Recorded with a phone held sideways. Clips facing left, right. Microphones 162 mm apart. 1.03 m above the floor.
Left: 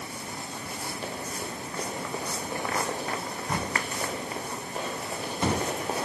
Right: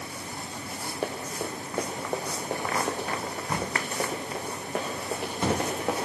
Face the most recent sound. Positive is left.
turn(degrees=-65)  # may be behind; listen again after turning